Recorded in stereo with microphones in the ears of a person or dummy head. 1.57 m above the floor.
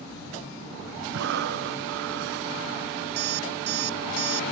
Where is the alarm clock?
70° right (ahead or behind).